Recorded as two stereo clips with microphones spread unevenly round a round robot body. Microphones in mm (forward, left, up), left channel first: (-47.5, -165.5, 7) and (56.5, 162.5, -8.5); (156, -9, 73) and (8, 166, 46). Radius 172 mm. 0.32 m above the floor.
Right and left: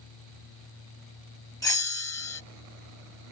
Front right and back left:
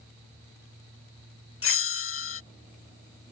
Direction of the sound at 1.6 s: 25° right.